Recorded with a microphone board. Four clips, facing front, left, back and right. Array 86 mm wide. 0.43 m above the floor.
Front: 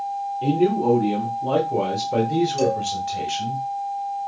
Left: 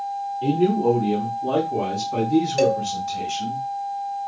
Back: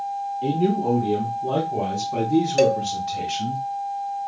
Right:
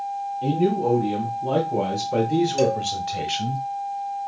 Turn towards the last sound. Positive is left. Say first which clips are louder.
# left 2 dB, back 3 dB
turn(degrees=160)